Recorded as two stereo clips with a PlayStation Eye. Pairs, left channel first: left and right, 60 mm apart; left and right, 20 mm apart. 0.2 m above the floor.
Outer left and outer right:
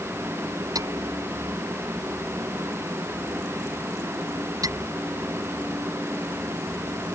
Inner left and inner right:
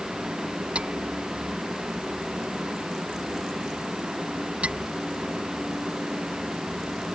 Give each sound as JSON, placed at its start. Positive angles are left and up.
{"t": 0.8, "sound": "hammering", "side_deg": -80}